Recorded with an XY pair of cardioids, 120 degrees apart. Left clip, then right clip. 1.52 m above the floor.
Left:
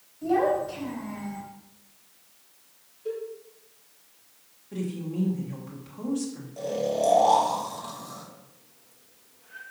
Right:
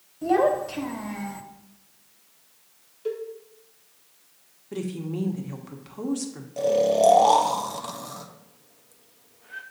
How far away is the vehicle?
No vehicle in this recording.